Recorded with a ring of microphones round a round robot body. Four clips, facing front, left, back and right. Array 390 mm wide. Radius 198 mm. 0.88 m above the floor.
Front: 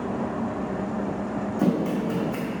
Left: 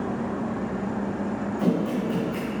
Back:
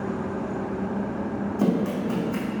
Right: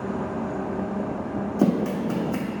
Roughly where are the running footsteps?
Right.